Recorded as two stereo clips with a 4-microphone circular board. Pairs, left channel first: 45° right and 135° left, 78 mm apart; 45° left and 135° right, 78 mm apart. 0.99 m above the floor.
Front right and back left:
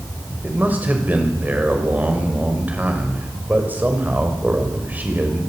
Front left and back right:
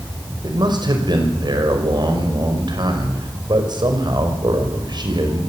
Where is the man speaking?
155° right, 5.5 m.